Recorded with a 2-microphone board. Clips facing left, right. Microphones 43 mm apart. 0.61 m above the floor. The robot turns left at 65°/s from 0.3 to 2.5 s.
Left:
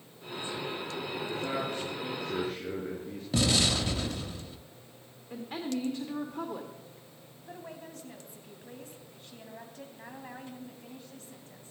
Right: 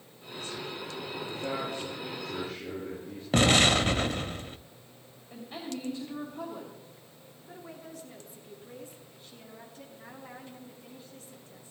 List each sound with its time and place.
1.2 s a man speaking: 155° left, 8 m; by 3.2 s 70° left, 8 m
3.3 s an explosion: 50° right (ahead or behind), 0.6 m
5.3 s a woman speaking: 60° left (ahead or behind), 1.9 m
7.5 s a woman speaking: 55° left (ahead or behind), 4 m